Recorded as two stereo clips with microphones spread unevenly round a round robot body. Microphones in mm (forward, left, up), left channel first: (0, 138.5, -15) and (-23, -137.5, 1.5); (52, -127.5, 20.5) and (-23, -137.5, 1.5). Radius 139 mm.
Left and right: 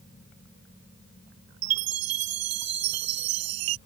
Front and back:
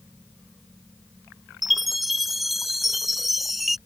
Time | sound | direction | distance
1.6 | a chime | 85° right | ?